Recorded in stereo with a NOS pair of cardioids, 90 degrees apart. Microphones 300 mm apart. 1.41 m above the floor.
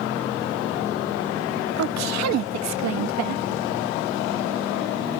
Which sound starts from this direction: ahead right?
A woman speaking, at 1.8 s.